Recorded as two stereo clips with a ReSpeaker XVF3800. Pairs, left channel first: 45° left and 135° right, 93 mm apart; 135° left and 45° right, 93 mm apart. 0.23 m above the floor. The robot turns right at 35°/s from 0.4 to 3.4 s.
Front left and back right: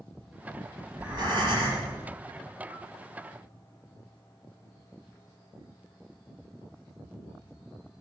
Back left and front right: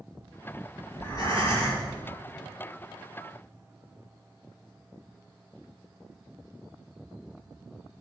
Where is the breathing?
175° left, 5 m; by 1.9 s 155° right, 5 m.